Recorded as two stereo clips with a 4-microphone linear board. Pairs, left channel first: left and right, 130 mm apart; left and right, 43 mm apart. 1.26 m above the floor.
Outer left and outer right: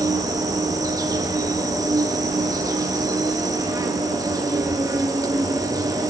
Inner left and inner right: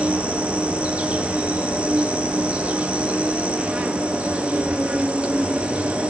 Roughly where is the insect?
Right.